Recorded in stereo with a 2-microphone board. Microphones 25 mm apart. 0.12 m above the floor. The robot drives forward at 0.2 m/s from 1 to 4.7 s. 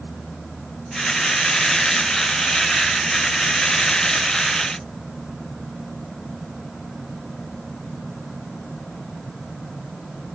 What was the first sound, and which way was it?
Only background noise.